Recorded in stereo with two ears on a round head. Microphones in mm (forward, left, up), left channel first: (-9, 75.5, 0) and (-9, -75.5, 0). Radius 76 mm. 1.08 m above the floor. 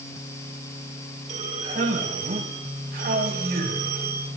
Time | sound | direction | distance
1.3 | a man speaking | 45° right (ahead or behind) | 6.5 m